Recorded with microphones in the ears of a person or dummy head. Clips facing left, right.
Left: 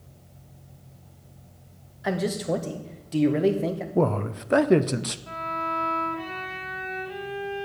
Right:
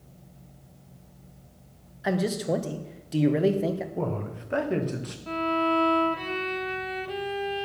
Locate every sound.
2.0 s a man speaking: 5° right (ahead or behind), 0.9 m
4.0 s a man speaking: 65° left (ahead or behind), 0.7 m
5.3 s a violin: 45° right (ahead or behind), 0.6 m